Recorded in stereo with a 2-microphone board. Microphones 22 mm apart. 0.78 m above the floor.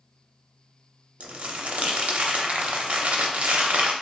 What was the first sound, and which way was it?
Crumpling, 75° right (ahead or behind).